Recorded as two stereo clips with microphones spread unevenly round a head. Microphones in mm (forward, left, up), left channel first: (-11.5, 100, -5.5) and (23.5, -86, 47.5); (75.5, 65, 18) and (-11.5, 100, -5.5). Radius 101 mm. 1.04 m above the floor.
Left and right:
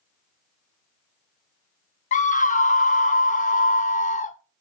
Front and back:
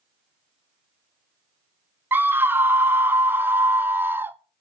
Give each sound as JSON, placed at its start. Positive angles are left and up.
{"t": 2.1, "sound": "a scream", "azimuth_deg": 110, "distance_m": 0.6}